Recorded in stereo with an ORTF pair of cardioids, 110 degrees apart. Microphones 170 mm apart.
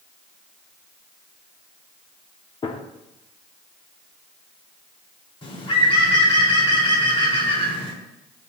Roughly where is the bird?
Ahead left.